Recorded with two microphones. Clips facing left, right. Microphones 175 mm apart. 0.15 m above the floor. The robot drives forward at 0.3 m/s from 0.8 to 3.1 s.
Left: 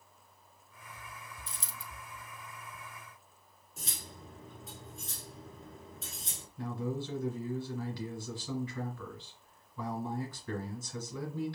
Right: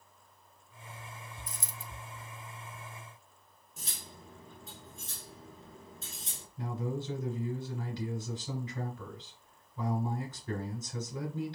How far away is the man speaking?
About 1.3 m.